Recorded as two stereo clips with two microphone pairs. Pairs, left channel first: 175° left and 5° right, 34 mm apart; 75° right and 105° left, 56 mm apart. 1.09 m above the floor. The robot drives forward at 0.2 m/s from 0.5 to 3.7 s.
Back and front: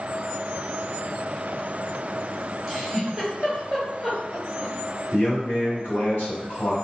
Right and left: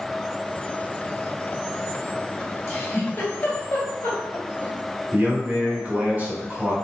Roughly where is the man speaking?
Behind.